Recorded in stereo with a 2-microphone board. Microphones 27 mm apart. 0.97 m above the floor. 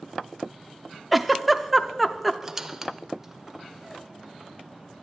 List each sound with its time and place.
1.1 s a giggle: centre (ahead or behind), 0.5 m
2.4 s a squeak: 15° right (ahead or behind), 0.7 m